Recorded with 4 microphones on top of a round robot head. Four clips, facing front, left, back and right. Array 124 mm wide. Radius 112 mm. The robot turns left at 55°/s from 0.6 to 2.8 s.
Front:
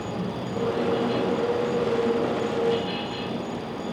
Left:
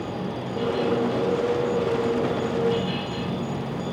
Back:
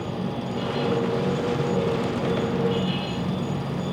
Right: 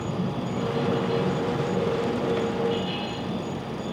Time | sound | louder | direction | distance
0.0 | an insect | right 1 dB, back 1 dB | 85° right | 0.9 m